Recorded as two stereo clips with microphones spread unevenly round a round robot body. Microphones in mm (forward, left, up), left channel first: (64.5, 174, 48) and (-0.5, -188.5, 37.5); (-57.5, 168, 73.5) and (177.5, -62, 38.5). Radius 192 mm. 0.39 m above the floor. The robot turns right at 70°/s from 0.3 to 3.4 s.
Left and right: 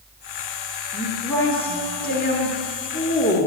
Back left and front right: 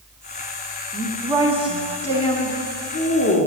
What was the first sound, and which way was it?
A woman speaking, 25° right.